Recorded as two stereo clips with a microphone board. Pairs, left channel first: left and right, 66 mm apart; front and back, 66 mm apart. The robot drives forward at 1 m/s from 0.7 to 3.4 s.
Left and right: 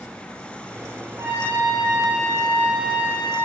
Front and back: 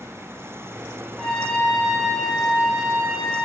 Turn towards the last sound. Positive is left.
turn(degrees=-105)